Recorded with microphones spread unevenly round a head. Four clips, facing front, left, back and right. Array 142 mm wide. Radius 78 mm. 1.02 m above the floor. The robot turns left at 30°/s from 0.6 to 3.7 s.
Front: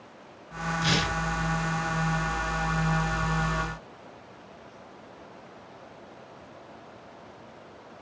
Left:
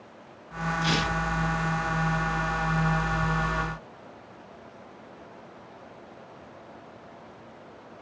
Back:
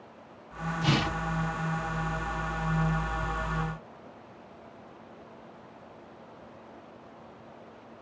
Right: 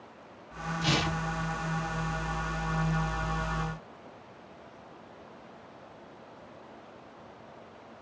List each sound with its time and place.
0.8 s tearing paper: 165° right, 1.9 m; by 1.2 s 175° right, 1.9 m